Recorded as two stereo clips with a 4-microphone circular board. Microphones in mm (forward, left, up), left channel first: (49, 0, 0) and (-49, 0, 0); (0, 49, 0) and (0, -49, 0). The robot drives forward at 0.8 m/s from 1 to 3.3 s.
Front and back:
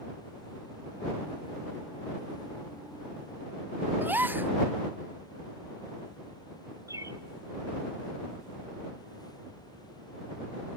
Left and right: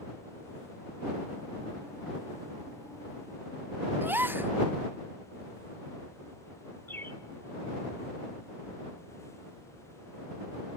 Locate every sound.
4.0 s a gasp: 130° right, 0.5 m
6.9 s a bird: 145° left, 1.0 m